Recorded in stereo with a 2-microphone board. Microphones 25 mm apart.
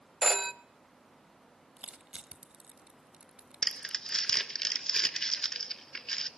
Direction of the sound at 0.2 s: 5° right (ahead or behind).